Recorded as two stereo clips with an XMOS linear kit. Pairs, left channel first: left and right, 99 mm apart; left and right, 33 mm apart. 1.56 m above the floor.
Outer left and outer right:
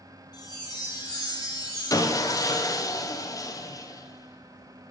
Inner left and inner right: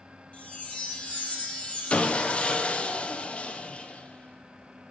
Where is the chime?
40° left (ahead or behind), 1.3 m.